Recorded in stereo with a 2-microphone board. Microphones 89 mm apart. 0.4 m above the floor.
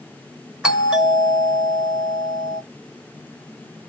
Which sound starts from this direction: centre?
A doorbell, at 0.6 s.